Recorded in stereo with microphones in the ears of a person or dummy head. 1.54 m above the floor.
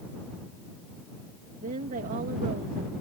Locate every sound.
1.6 s a woman speaking: 45° right (ahead or behind)